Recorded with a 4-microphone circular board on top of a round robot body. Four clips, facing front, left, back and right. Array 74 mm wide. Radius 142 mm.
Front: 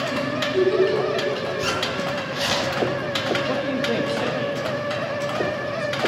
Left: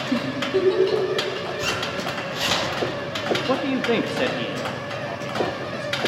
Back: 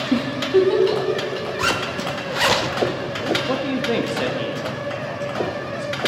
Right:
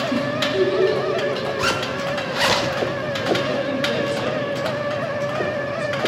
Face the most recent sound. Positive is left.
turn(degrees=100)